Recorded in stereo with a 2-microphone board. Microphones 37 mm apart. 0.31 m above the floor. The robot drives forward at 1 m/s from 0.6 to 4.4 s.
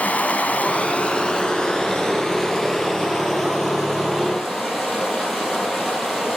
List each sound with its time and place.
0.0 s running water: 40° left (ahead or behind), 1.2 m; by 6.4 s 10° left (ahead or behind), 4.5 m